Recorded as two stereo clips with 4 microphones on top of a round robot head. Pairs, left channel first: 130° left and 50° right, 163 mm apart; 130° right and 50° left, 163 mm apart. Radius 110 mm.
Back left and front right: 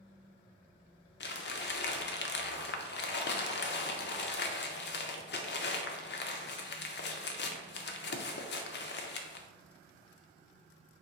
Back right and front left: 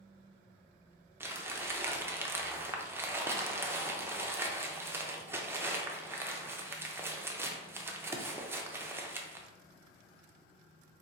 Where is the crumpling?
130° left, 0.7 m.